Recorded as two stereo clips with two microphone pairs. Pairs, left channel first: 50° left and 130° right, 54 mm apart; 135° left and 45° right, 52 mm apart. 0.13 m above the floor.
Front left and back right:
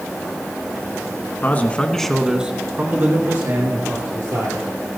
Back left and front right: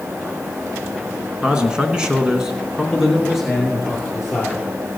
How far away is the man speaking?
About 1.3 m.